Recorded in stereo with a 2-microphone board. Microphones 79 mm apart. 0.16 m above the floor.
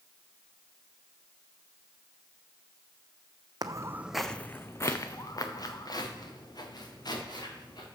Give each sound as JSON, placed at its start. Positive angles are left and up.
{"t": 3.6, "sound": "footsteps", "side_deg": -55, "distance_m": 0.6}